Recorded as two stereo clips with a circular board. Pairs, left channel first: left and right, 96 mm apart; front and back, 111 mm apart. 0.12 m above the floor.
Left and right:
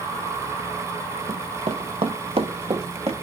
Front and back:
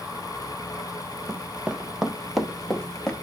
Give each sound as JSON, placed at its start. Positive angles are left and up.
{"t": 1.3, "sound": "running footsteps", "azimuth_deg": -105, "distance_m": 0.7}